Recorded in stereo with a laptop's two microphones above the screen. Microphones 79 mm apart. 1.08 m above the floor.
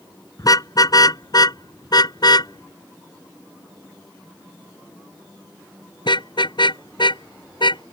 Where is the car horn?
45° left (ahead or behind); by 7.8 s 65° left (ahead or behind).